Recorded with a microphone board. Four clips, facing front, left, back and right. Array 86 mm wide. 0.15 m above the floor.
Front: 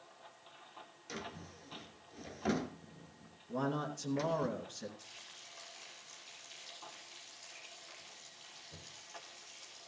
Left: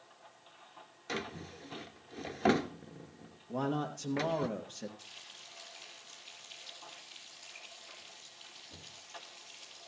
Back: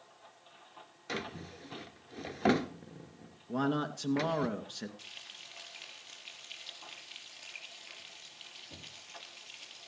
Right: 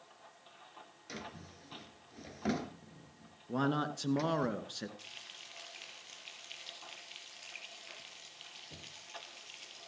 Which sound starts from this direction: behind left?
A drawer, at 1.1 s.